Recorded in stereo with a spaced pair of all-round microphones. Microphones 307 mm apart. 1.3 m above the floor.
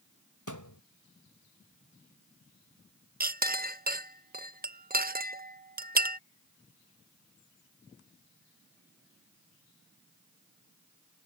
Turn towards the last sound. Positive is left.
turn(degrees=-30)  # may be behind; listen again after turning